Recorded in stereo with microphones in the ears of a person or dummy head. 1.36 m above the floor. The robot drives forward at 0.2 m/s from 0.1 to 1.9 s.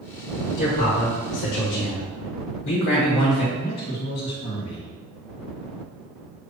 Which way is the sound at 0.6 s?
60° left (ahead or behind).